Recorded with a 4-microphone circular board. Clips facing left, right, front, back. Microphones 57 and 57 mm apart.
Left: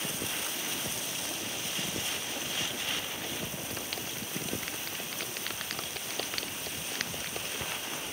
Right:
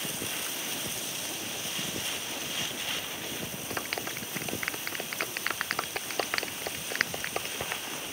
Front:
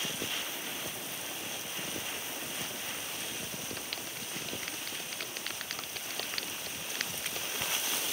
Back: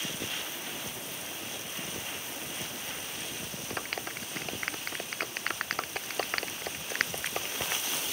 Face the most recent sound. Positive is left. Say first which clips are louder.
# right 4 dB, back 5 dB
turn(degrees=-135)